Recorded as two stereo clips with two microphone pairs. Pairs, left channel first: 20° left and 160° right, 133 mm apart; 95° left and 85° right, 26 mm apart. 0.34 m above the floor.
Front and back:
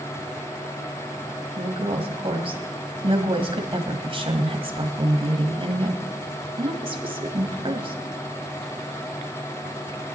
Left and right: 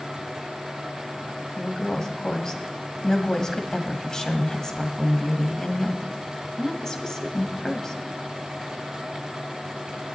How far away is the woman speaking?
About 1.8 m.